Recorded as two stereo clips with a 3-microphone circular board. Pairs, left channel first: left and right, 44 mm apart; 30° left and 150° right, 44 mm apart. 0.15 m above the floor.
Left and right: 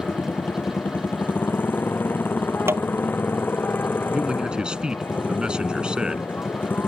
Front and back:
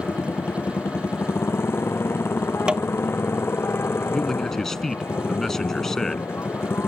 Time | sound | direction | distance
0.0 | a motorcycle | 50° left | ?
2.7 | tapping | 85° right | ?
4.1 | a man speaking | 45° right | ?